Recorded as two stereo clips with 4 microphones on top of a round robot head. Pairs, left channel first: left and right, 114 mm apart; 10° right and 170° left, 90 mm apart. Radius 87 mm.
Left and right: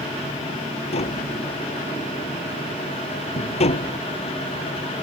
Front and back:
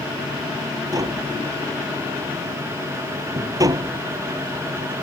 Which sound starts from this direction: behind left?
Tapping, at 0.9 s.